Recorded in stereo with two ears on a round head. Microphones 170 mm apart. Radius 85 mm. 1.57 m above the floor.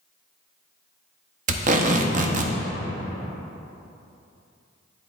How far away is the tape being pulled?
About 0.5 m.